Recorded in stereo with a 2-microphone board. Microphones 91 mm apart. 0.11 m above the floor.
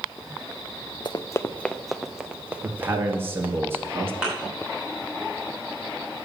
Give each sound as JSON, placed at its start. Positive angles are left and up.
{"t": 1.1, "sound": "running footsteps", "side_deg": 50, "distance_m": 0.5}
{"t": 2.6, "sound": "a man speaking", "side_deg": -25, "distance_m": 1.9}
{"t": 4.2, "sound": "a thud", "side_deg": -10, "distance_m": 5.0}